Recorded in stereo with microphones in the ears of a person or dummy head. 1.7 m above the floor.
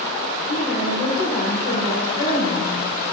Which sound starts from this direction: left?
A woman speaking, at 0.5 s.